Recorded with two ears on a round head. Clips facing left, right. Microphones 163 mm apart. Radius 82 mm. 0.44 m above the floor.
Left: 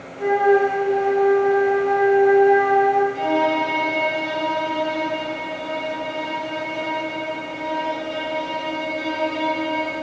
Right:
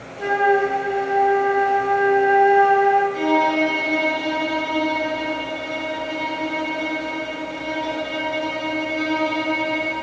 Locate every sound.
0.2 s a flute: 25° right (ahead or behind), 1.7 m
3.1 s a violin: 55° right (ahead or behind), 5 m